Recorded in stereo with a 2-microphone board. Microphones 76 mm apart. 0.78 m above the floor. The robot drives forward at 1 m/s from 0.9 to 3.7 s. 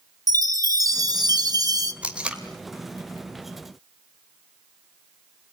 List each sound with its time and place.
0.3 s a chime: 45° right (ahead or behind), 1.1 m
2.0 s tape being pulled: 15° right (ahead or behind), 1.9 m